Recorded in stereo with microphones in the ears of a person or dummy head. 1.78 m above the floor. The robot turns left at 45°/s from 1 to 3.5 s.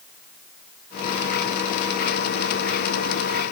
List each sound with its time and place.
Only background noise.